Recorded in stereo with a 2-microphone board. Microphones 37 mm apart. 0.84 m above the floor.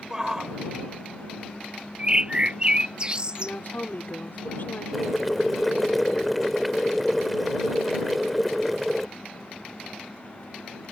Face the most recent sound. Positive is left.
turn(degrees=0)  # may be behind; listen again after turning